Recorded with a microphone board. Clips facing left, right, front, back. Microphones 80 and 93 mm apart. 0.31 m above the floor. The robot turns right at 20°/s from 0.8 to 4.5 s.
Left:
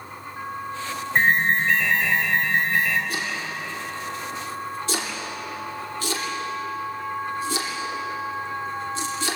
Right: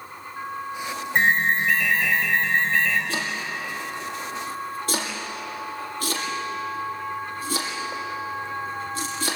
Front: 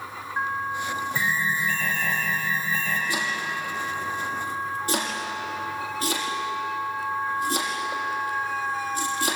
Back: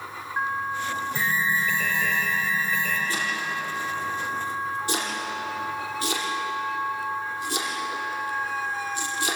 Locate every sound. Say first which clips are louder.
1.1 s an alarm: left 1 dB, back 1 dB; 175° left, 6 m; by 3.0 s 150° right, 6 m
3.1 s chopping: even, even; 75° right, 6 m; by 9.4 s 45° right, 6 m